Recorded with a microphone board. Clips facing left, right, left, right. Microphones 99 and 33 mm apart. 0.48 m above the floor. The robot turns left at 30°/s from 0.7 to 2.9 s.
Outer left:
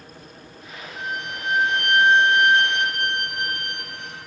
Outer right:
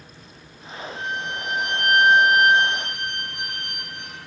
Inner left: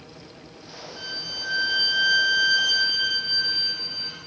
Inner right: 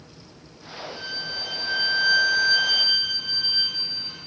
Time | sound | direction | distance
1.0 | a violin | 170° left | 2.5 m